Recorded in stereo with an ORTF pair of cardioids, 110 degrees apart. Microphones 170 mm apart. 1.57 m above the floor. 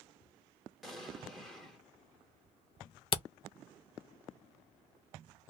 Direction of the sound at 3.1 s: 35° left.